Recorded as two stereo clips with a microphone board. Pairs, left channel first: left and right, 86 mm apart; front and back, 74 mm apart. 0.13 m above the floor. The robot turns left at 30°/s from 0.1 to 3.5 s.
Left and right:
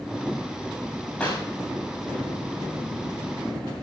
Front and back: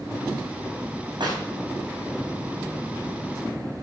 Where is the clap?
165° left, 6 m; by 1.4 s 160° left, 6 m.